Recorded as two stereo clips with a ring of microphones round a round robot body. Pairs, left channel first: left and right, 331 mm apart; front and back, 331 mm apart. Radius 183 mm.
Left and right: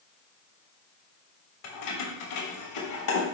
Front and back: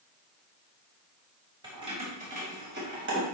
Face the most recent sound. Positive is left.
turn(degrees=125)